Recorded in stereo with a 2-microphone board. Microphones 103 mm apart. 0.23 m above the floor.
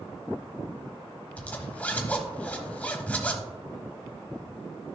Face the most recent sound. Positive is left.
turn(degrees=15)  # may be behind; listen again after turning